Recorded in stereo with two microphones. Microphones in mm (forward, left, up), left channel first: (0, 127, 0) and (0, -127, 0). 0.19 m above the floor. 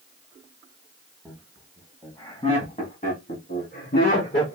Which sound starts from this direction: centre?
Laughter, at 1.2 s.